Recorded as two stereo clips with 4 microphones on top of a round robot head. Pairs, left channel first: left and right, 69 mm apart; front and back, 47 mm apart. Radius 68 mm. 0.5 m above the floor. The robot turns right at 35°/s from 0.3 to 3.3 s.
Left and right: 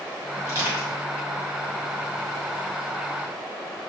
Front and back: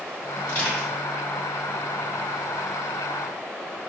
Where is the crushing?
65° right, 1.6 m; by 0.9 s 50° right, 1.6 m.